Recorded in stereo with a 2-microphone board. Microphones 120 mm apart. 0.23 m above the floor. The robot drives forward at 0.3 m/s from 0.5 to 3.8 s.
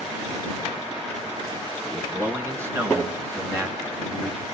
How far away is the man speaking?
About 2.5 m.